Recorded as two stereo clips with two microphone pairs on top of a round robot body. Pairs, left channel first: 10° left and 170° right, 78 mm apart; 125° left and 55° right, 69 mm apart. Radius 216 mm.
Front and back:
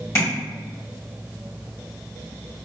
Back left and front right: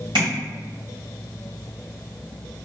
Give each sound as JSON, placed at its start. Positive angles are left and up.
{"t": 0.1, "sound": "tapping", "azimuth_deg": -45, "distance_m": 1.3}